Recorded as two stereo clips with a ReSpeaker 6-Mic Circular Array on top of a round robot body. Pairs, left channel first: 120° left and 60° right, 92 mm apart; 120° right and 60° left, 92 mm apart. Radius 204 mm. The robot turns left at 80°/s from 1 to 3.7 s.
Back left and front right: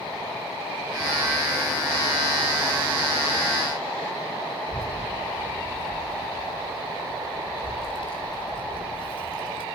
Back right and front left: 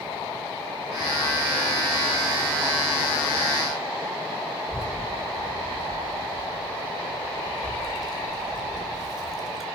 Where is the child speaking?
150° left, 5.5 m.